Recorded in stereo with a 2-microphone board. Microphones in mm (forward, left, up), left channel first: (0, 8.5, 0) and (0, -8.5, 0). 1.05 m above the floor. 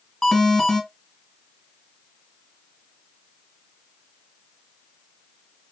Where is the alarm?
35° left (ahead or behind), 1.7 m.